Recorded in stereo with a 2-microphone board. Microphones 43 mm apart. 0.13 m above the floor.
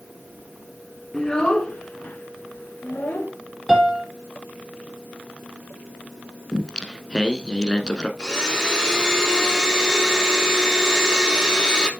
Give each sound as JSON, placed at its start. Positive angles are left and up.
{"t": 1.1, "sound": "a child speaking", "side_deg": 10, "distance_m": 1.1}
{"t": 3.7, "sound": "a piano", "side_deg": -5, "distance_m": 3.5}
{"t": 6.5, "sound": "singing", "side_deg": 20, "distance_m": 1.0}
{"t": 8.2, "sound": "a blender", "side_deg": 15, "distance_m": 3.0}